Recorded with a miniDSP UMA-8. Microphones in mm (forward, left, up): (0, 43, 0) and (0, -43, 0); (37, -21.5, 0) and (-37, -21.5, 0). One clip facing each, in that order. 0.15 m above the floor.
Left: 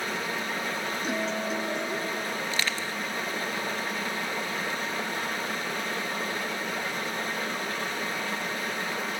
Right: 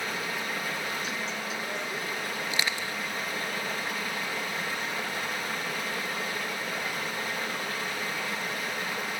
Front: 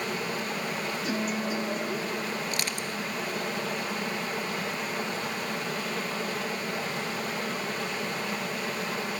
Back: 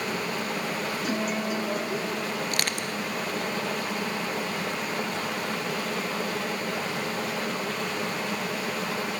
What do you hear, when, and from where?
0.0 s running water: 175° right, 9 m
1.0 s a guitar: 145° left, 4 m
2.5 s crushing: 165° right, 0.8 m